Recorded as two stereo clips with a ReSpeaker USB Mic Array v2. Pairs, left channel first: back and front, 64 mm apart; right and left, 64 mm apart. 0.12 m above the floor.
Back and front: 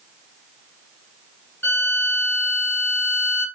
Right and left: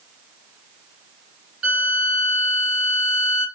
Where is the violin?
155° left, 2 m.